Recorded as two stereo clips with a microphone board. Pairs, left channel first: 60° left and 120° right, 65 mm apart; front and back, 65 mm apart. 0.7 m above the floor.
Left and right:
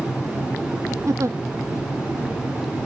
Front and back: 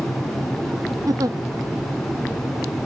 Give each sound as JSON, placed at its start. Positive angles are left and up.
{"t": 1.1, "sound": "a giggle", "azimuth_deg": -160}